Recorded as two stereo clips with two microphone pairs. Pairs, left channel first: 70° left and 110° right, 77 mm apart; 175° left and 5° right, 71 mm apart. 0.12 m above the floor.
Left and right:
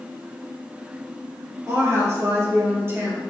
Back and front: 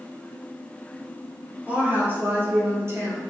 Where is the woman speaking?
70° right, 3.5 m; by 3.2 s 50° right, 4 m.